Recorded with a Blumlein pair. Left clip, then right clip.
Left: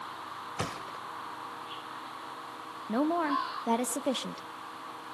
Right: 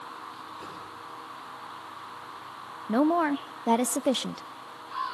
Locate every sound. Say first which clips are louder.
0.6 s a thud: left 4 dB; 50° left, 2.5 m
2.9 s a woman speaking: right 4 dB; 20° right, 0.5 m